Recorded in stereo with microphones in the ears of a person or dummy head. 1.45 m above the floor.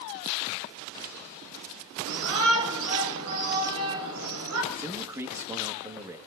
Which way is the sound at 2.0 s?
75° right (ahead or behind).